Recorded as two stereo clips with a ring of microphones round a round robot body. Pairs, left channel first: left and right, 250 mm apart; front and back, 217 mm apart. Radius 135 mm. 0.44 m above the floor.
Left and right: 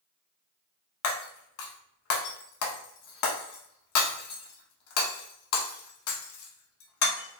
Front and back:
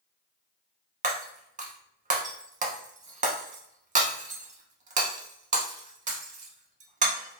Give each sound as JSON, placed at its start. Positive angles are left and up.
{"t": 1.0, "sound": "breaking glass", "azimuth_deg": 125, "distance_m": 0.7}